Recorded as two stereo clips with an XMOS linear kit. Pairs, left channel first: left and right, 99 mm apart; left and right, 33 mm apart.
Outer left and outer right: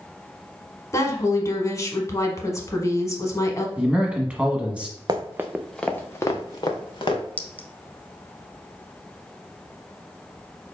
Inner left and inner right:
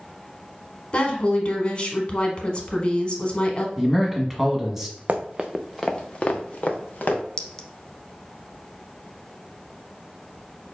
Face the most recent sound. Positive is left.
turn(degrees=15)  # may be behind; listen again after turning